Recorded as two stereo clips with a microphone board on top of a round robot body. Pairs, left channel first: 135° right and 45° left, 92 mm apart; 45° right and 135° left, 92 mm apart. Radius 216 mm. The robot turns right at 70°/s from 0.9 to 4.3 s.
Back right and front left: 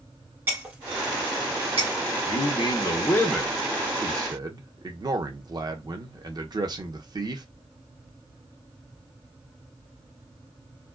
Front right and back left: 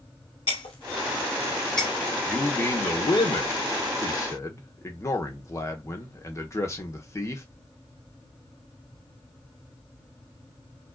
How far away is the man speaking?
About 1.3 m.